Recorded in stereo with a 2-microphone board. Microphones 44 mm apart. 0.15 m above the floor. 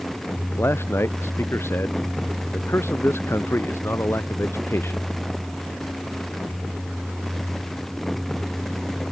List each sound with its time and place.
0.6 s a man speaking: 65° left (ahead or behind)